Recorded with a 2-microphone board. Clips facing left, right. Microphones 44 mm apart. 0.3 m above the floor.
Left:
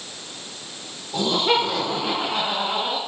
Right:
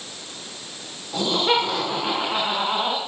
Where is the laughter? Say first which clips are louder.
Even; 10° right (ahead or behind), 5 m; by 3.0 s 20° right (ahead or behind), 3 m.